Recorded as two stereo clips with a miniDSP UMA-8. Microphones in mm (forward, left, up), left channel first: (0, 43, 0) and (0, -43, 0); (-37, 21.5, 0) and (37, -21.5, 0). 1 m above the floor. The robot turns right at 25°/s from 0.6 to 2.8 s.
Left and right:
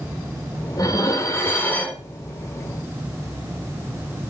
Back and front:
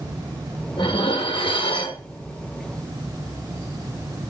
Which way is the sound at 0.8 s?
135° left.